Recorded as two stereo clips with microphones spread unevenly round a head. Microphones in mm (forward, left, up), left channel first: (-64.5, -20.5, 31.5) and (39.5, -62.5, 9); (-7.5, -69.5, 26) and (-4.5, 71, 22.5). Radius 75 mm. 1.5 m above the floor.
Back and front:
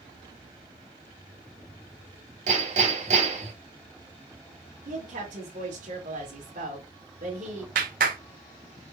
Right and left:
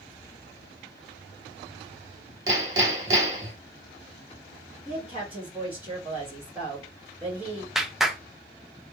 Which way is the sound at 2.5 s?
20° left.